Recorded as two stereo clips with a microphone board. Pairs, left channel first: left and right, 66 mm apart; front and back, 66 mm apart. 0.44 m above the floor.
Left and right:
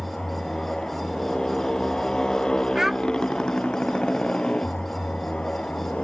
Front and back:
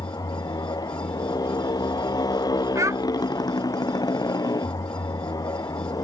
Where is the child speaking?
170° right.